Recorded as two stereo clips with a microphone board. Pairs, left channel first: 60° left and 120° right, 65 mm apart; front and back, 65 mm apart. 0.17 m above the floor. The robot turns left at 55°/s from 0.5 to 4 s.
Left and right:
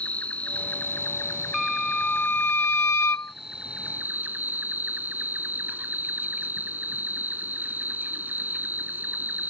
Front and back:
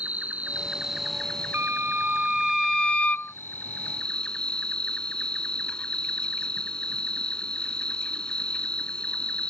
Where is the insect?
120° left; by 9.5 s 70° right.